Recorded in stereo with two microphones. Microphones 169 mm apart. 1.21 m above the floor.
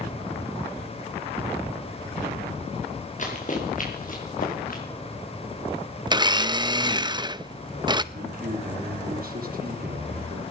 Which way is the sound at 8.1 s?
55° right (ahead or behind).